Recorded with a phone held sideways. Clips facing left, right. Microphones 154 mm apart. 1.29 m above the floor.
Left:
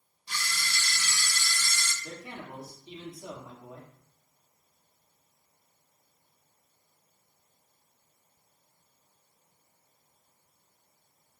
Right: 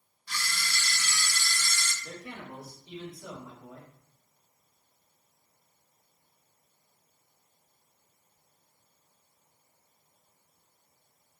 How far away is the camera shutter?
About 0.9 m.